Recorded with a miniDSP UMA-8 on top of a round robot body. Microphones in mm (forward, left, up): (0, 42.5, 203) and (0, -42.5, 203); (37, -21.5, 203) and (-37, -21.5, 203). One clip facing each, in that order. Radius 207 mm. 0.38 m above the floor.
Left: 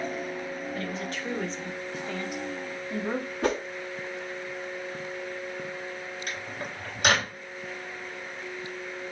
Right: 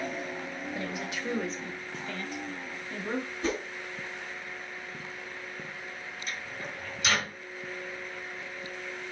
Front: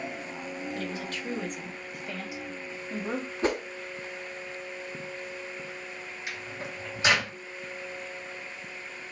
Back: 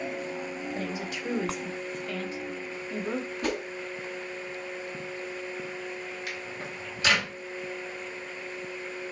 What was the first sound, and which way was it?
A woman speaking, 145° right.